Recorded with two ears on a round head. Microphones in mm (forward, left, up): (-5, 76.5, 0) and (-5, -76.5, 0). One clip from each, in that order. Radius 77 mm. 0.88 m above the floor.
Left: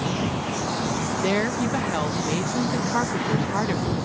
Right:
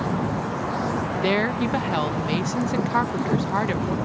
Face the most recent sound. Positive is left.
turn(degrees=-15)  # may be behind; listen again after turning